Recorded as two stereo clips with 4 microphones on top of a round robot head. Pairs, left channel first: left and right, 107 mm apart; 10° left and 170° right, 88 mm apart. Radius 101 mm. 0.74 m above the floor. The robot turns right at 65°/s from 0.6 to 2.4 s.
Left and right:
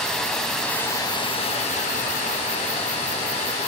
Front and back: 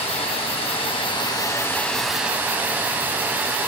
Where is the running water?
5° left, 1.6 m; by 3.7 s 125° left, 1.6 m.